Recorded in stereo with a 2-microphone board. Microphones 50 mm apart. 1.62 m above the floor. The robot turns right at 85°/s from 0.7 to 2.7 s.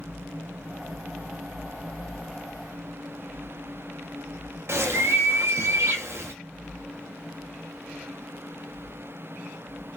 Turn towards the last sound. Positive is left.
turn(degrees=-65)  # may be behind; listen again after turning